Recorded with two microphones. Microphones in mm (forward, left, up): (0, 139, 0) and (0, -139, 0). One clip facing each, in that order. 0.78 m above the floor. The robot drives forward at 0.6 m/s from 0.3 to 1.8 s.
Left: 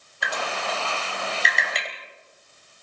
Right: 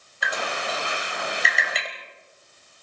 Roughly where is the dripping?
Centre.